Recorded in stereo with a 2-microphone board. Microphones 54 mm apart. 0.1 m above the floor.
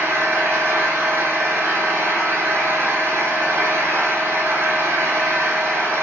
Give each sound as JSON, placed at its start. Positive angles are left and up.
{"t": 0.0, "sound": "an engine running", "side_deg": -55, "distance_m": 1.4}